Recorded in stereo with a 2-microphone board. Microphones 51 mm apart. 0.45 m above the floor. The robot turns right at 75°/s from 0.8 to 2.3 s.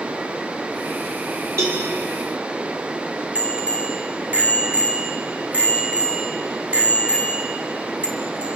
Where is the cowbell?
65° right (ahead or behind), 9 m; by 1.8 s 50° right (ahead or behind), 9 m.